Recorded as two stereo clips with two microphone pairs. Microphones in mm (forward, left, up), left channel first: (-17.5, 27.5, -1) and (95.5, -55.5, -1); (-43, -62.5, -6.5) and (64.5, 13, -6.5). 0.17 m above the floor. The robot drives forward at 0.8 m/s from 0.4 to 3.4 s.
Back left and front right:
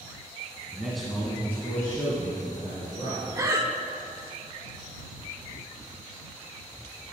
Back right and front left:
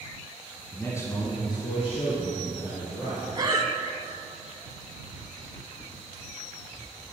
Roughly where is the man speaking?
Right.